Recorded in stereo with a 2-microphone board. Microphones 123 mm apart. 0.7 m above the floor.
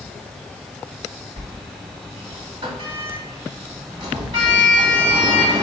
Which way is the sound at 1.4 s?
35° right (ahead or behind).